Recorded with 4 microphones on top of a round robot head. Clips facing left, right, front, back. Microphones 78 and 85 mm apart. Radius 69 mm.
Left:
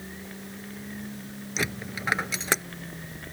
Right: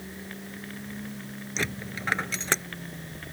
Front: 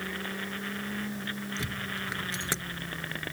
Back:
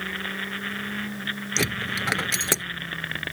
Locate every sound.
1.6 s a dropped coin: 175° left